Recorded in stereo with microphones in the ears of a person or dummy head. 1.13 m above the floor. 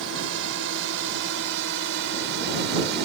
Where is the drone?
70° right (ahead or behind); by 3.0 s 60° right (ahead or behind).